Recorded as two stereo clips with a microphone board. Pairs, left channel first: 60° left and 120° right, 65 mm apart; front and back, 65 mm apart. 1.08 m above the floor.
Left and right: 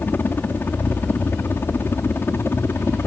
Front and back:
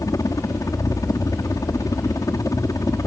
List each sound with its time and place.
0.0 s a helicopter: 5° left; by 3.1 s 15° left